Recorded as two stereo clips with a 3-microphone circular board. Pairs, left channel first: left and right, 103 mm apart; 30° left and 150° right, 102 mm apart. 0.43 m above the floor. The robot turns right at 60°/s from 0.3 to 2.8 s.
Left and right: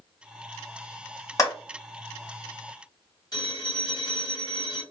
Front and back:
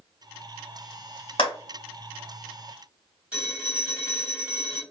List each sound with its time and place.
1.4 s a clap: 40° left, 1.5 m; by 1.5 s 45° left, 1.5 m
3.3 s a phone ringing: 135° left, 1.9 m